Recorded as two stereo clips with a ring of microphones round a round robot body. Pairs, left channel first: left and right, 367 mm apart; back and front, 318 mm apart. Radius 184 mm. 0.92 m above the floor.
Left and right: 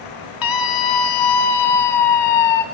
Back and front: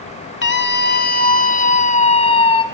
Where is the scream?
125° left, 2.5 m; by 2.6 s 105° left, 3.5 m.